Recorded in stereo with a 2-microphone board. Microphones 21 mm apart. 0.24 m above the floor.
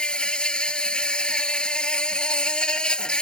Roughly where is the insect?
Left.